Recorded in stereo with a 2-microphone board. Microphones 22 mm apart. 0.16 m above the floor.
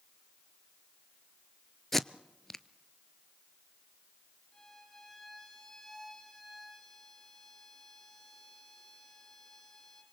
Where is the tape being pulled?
10° left (ahead or behind), 0.7 m.